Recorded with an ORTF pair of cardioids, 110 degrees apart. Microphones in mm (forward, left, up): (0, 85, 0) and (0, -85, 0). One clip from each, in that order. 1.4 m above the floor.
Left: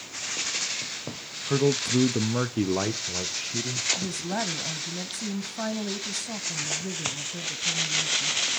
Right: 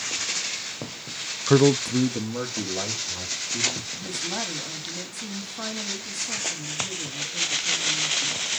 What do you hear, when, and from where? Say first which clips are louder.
1.5 s a man speaking: right 5 dB; 40° right, 0.5 m; by 3.9 s 65° left, 1.8 m
4.0 s a woman speaking: right 1 dB; 40° left, 1.2 m